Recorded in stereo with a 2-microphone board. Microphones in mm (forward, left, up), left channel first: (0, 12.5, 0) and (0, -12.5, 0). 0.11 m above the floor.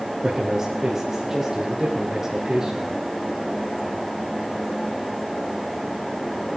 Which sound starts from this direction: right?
A man speaking, at 0.2 s.